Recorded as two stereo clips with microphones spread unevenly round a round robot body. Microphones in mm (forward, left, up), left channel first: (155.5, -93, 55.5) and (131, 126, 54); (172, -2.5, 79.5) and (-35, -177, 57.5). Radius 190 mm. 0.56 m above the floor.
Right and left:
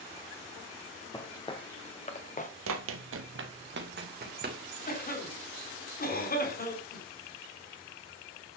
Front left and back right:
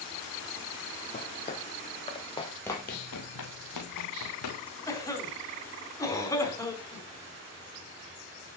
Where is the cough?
40° right, 5 m.